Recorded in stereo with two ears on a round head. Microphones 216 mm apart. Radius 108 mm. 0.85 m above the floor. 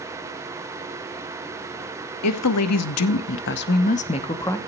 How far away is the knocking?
No knocking in this recording.